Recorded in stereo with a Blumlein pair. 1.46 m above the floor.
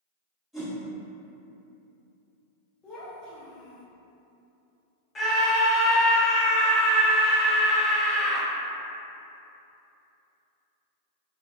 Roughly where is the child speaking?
Ahead.